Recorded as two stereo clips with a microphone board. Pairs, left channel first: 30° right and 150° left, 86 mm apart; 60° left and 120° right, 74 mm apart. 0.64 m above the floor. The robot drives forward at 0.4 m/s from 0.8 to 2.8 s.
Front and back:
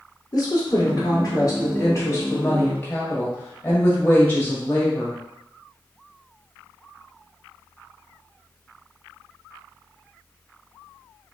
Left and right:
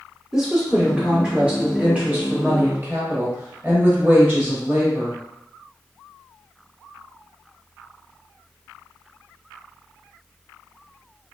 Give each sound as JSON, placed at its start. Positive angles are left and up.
{"t": 0.3, "sound": "a woman speaking", "azimuth_deg": -40, "distance_m": 1.6}